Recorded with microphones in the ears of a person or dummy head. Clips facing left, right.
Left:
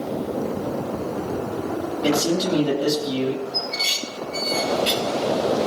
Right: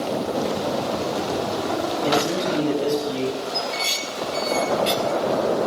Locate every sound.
2.0 s a man speaking: 25° left (ahead or behind), 9 m; by 3.4 s 35° left (ahead or behind), 9 m
3.5 s dishes clattering: 5° left (ahead or behind), 1.6 m